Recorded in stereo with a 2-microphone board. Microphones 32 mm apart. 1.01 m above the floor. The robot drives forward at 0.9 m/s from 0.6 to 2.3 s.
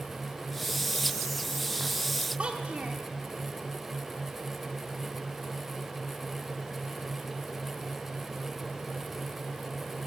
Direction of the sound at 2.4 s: 40° right (ahead or behind).